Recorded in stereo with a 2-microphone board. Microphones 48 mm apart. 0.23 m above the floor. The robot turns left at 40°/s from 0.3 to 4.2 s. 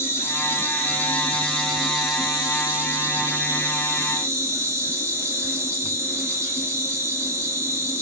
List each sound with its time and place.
0.0 s an insect: 60° left, 2.5 m; by 8.0 s 95° right, 2.5 m